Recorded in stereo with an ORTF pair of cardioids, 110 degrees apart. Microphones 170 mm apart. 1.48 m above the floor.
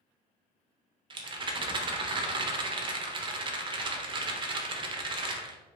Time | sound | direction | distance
1.1 | a rattle | 30° right | 0.6 m